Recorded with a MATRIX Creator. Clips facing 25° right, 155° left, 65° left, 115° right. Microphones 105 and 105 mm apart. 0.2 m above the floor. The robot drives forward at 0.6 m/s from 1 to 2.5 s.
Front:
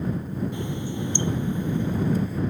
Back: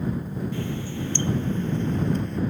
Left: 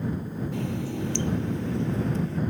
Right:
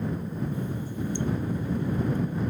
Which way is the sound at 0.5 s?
50° left.